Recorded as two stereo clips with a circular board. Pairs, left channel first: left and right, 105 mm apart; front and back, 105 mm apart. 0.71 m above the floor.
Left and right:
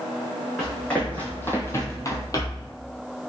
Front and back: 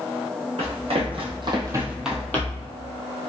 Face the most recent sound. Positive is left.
turn(degrees=40)